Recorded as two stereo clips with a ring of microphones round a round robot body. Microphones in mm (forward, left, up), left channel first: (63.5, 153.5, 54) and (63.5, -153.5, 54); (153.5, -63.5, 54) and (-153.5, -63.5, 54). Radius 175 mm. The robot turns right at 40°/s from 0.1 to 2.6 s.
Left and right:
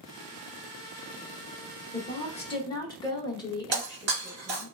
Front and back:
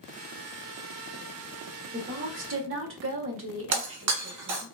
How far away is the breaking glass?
About 1.4 m.